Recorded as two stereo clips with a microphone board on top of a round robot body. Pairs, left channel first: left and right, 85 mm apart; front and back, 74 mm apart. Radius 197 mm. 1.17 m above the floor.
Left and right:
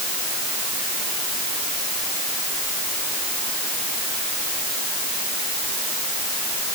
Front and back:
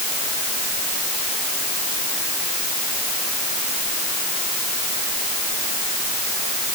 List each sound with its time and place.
Only background noise.